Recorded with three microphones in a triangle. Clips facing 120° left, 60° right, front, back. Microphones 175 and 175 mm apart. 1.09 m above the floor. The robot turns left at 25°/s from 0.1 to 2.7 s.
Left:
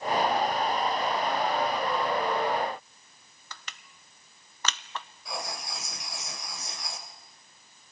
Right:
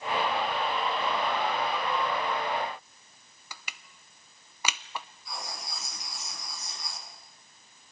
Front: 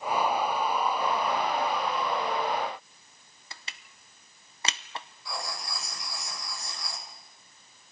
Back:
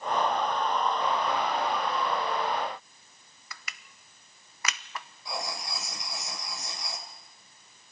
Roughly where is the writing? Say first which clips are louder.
Left 4 dB, back 3 dB; left.